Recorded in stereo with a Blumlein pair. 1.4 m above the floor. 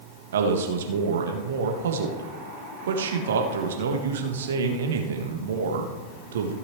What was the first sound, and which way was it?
A man speaking, 60° right.